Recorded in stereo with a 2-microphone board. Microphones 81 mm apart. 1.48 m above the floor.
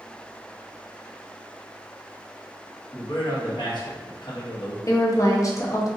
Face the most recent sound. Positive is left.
turn(degrees=40)  # may be behind; listen again after turning